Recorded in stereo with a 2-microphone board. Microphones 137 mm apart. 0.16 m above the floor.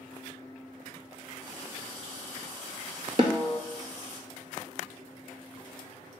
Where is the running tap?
40° right (ahead or behind), 1.4 m.